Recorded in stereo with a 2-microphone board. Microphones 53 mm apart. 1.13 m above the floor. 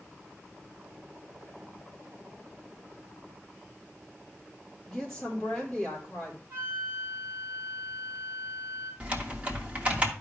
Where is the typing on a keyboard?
20° right (ahead or behind), 1.5 m.